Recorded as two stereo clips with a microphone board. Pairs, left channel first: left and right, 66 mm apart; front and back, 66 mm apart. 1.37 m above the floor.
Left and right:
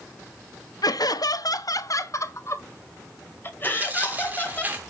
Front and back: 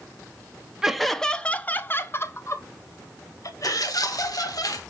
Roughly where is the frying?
No frying in this recording.